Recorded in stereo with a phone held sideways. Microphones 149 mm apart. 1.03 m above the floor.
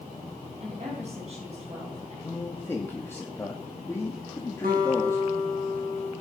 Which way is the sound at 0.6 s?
45° right (ahead or behind).